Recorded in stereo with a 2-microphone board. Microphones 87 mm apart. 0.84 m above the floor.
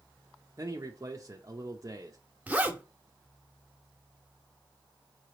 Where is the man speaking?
35° right (ahead or behind), 0.5 m.